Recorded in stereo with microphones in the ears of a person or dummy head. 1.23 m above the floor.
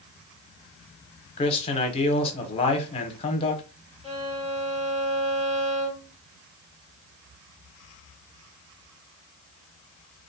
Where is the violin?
20° right (ahead or behind), 1.2 m.